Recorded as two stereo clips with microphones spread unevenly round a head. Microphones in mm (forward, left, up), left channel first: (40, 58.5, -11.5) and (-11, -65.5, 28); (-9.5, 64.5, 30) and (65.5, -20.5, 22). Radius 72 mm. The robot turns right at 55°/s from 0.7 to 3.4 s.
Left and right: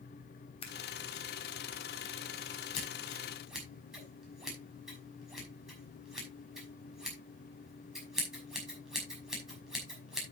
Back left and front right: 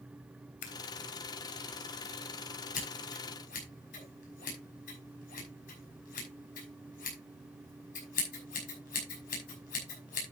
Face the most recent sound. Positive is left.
turn(degrees=160)